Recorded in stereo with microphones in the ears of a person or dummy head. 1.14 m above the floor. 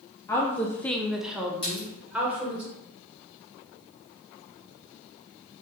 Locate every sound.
0.3 s a woman speaking: 10° left (ahead or behind), 0.6 m; by 2.6 s 5° right (ahead or behind), 1.5 m
1.6 s a splash: 25° left (ahead or behind), 1.7 m